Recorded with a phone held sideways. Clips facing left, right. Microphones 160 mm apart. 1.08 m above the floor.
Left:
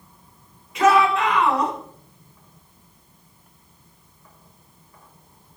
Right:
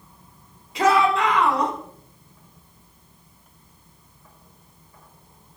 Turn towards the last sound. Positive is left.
turn(degrees=-35)  # may be behind; listen again after turning